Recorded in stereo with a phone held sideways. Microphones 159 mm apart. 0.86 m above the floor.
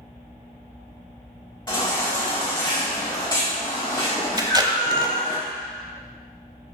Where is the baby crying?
30° left (ahead or behind), 4 m.